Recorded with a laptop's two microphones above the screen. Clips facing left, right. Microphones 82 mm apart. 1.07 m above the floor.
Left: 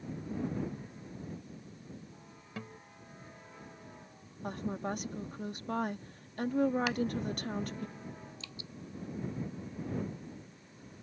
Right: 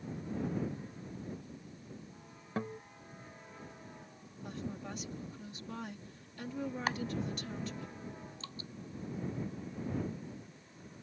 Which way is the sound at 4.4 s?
50° left (ahead or behind).